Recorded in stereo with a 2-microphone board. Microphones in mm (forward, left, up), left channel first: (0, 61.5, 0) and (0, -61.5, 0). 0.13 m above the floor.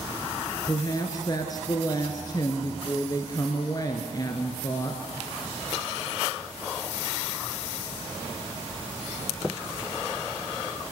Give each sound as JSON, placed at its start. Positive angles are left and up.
{"t": 0.7, "sound": "a woman speaking", "side_deg": 30, "distance_m": 1.8}